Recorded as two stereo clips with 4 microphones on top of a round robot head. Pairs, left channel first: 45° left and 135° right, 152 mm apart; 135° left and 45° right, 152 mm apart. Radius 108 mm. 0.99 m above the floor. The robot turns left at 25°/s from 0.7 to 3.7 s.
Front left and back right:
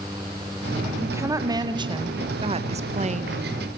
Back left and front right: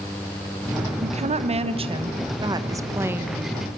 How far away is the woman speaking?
About 1.2 m.